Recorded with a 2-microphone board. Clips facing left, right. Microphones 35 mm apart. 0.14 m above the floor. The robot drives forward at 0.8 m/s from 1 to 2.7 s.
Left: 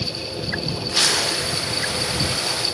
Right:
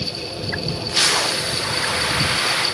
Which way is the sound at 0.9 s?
10° right (ahead or behind).